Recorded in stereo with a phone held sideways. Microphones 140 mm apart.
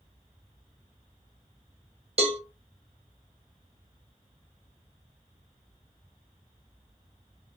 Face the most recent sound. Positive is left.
turn(degrees=-45)  # may be behind; listen again after turning